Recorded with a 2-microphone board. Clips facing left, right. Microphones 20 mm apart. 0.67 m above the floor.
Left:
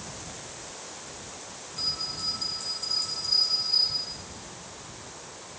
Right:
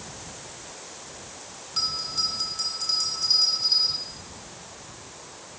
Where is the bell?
80° right, 4 m.